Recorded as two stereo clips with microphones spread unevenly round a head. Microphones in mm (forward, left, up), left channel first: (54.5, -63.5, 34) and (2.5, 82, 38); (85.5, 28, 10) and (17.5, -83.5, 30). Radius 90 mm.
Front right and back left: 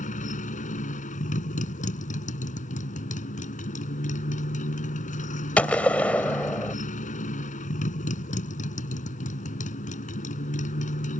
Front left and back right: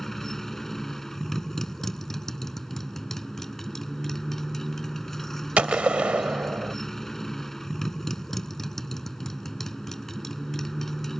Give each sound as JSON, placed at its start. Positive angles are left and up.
{"t": 0.0, "sound": "a motorcycle", "azimuth_deg": -30}
{"t": 5.6, "sound": "a gunshot", "azimuth_deg": -145}